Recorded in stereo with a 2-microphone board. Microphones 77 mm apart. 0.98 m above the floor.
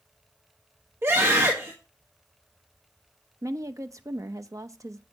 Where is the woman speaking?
40° right (ahead or behind), 0.8 m.